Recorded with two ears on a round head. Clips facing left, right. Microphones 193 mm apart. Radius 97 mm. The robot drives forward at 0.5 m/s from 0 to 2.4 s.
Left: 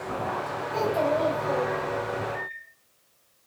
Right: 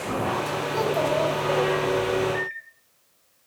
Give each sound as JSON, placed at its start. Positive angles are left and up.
{"t": 0.7, "sound": "a child speaking", "side_deg": -15, "distance_m": 4.5}
{"t": 2.3, "sound": "a microwave", "side_deg": -60, "distance_m": 1.4}